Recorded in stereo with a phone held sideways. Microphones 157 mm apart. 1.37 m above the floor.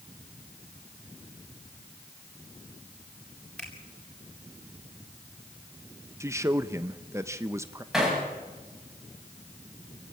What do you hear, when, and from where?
3.6 s a finger snap: 10° left (ahead or behind), 6.5 m
6.2 s a man speaking: 20° right (ahead or behind), 0.9 m
7.9 s hammering: centre (ahead or behind), 9 m